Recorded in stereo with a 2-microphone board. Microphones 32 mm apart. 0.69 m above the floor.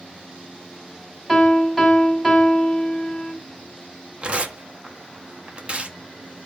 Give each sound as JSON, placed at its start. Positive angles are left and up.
{"t": 1.3, "sound": "a piano", "side_deg": 5, "distance_m": 3.0}
{"t": 4.2, "sound": "tearing paper", "side_deg": -35, "distance_m": 1.0}